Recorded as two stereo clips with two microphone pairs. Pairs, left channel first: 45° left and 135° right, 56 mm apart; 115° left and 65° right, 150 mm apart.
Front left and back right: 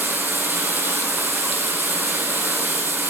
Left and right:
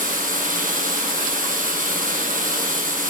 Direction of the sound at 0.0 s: 80° right.